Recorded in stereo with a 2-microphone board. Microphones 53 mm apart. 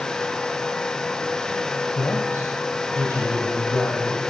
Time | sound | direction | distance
1.9 | a man speaking | 60° left (ahead or behind) | 2 m